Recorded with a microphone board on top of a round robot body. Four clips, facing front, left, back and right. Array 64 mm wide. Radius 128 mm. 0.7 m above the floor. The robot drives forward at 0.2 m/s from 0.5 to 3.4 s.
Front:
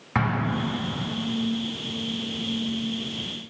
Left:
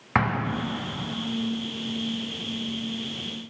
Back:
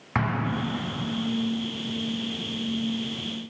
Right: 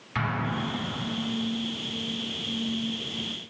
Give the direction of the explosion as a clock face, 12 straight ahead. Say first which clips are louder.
Left 4 dB, front 2 dB; 9 o'clock.